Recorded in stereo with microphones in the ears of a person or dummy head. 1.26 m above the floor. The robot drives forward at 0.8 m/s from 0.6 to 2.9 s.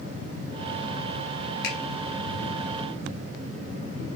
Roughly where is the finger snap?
Left.